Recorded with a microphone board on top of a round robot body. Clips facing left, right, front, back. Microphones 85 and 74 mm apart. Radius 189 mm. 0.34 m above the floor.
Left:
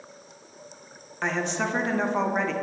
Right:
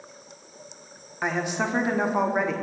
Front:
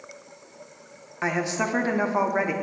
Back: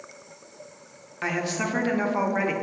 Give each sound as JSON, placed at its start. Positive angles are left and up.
{"t": 1.2, "sound": "a woman speaking", "azimuth_deg": -25, "distance_m": 1.2}